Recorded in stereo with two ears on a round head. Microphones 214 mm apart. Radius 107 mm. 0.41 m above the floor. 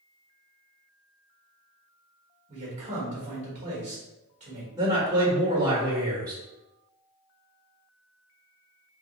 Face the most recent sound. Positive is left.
turn(degrees=-15)  # may be behind; listen again after turning